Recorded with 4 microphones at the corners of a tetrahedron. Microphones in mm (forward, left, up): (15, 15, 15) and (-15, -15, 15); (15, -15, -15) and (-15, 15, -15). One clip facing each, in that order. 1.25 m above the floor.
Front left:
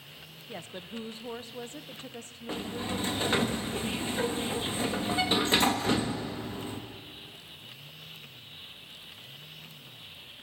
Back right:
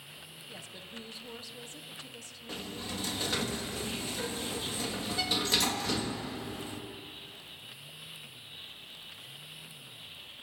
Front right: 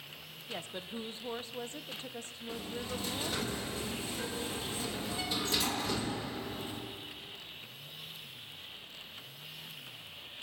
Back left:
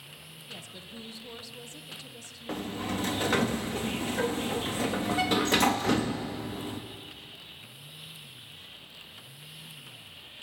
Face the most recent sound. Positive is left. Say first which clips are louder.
# front left 6 dB, back left 6 dB
turn(degrees=105)